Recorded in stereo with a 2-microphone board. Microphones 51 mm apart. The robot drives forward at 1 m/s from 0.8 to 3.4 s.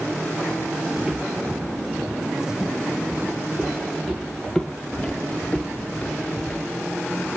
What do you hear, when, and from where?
1.0 s footsteps: 10° right (ahead or behind), 1.0 m; by 6.7 s 30° left (ahead or behind), 0.8 m